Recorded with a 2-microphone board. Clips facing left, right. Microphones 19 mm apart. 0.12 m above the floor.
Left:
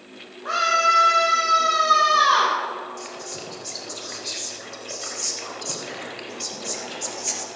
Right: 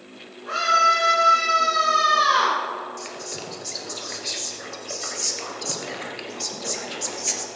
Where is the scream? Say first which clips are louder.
Right 1 dB; 60° left (ahead or behind), 5 m.